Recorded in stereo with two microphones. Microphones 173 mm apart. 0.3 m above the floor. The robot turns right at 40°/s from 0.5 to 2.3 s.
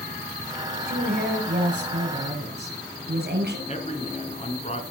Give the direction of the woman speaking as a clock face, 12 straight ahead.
4 o'clock.